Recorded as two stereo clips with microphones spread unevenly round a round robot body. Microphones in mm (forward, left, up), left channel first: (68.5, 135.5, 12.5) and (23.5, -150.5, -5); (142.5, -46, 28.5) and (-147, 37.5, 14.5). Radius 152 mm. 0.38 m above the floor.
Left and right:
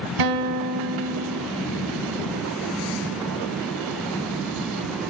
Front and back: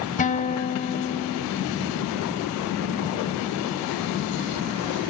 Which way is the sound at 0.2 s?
85° right.